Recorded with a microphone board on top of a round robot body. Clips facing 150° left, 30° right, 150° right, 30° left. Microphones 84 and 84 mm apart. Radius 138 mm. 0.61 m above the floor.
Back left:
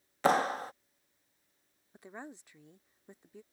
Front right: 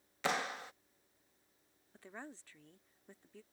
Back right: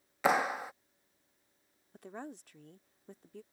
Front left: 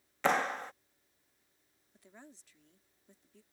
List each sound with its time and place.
0.2 s a clap: 130° left
1.9 s a woman speaking: 140° right